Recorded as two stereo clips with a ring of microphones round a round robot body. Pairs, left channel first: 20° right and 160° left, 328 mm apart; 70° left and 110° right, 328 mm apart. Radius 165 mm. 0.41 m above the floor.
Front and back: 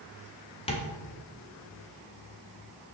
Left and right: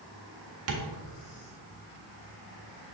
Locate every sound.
0.7 s tapping: 90° right, 1.6 m